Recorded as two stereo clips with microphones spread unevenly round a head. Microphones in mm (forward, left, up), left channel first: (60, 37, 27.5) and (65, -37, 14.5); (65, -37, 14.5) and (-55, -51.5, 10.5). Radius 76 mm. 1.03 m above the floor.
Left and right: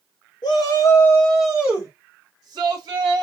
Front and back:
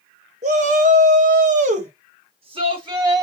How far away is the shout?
About 1.1 m.